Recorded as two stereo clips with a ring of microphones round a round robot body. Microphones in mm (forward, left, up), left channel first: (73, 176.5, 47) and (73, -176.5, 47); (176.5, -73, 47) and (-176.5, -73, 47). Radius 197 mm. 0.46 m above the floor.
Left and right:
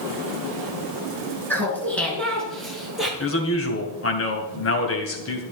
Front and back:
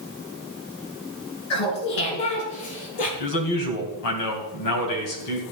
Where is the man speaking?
40° left, 2.5 m.